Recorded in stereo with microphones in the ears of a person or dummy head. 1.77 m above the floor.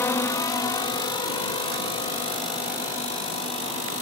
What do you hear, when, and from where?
0.0 s a drone: 15° left (ahead or behind); by 4.0 s 35° left (ahead or behind)